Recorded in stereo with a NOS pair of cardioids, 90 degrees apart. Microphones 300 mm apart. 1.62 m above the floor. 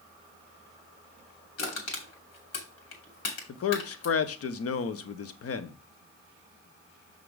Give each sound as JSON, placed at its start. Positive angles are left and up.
{"t": 1.6, "sound": "crushing", "azimuth_deg": 60, "distance_m": 3.0}
{"t": 3.5, "sound": "a man speaking", "azimuth_deg": 50, "distance_m": 0.9}